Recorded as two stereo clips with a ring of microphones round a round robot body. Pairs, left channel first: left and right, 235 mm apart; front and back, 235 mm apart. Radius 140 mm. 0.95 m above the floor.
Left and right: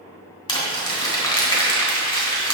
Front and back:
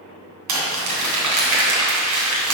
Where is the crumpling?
160° left, 3 m.